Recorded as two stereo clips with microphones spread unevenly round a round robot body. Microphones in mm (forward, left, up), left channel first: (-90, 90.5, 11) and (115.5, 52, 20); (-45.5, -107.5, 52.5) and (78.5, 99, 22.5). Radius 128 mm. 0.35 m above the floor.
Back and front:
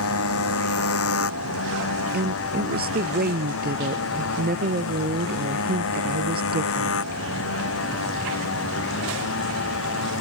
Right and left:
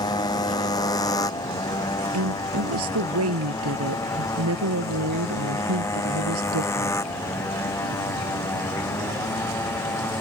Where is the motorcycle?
165° left; by 10.2 s 160° left.